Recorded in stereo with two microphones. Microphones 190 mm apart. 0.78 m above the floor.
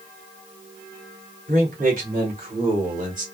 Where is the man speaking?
50° right (ahead or behind), 2.5 m; by 3.2 s 45° right (ahead or behind), 1.5 m.